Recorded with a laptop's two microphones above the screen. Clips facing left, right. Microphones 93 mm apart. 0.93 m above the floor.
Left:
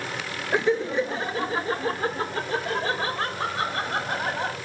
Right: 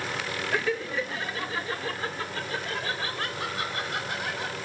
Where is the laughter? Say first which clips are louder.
Left 7 dB; 20° left (ahead or behind); by 4.6 s 35° left (ahead or behind).